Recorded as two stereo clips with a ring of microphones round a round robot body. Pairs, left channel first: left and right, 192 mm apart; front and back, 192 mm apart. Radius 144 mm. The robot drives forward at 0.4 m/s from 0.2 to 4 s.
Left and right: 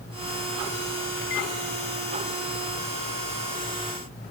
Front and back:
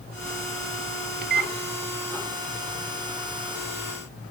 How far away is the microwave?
About 0.7 m.